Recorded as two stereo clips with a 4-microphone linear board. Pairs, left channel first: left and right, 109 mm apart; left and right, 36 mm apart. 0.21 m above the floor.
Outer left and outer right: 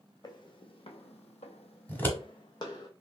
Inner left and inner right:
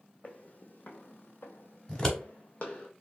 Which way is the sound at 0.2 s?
45° left (ahead or behind).